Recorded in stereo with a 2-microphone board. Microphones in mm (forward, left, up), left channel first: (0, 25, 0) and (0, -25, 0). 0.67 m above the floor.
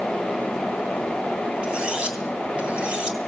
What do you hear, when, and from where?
1.6 s cutlery clinking: 20° right (ahead or behind), 3.5 m